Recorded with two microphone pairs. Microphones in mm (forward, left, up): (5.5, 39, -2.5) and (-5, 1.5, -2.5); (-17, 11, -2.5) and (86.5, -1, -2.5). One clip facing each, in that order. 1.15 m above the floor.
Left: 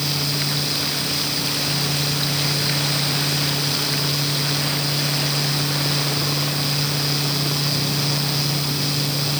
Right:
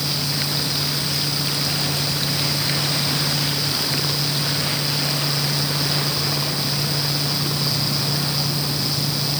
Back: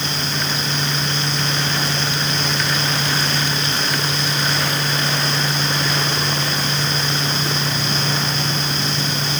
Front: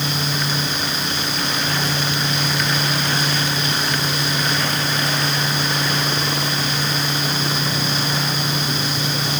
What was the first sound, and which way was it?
Only background noise.